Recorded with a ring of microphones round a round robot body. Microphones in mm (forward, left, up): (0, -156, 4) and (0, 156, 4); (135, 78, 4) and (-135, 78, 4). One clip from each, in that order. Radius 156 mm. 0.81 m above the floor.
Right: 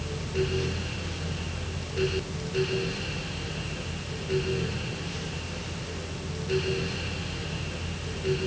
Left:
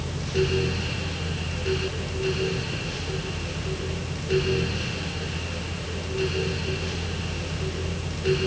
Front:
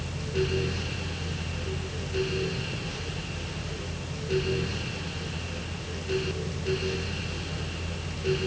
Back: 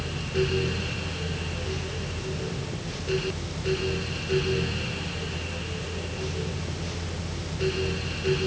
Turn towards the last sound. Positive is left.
No sound to turn to.